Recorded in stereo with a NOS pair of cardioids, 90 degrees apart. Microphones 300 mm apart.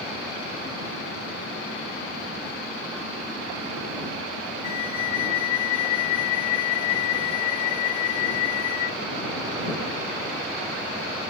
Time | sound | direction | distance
4.6 | a flute | 65° left | ?